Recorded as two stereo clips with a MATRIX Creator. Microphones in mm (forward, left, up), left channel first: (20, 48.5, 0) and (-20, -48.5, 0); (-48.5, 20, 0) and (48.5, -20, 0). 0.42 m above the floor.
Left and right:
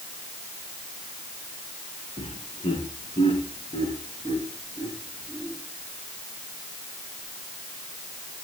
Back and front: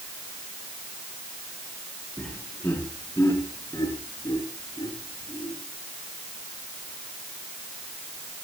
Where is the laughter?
80° left, 5 m; by 5.5 s 120° left, 8 m.